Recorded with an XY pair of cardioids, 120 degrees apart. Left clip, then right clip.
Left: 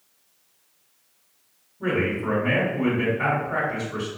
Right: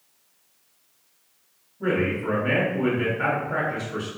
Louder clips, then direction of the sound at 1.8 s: Even; straight ahead.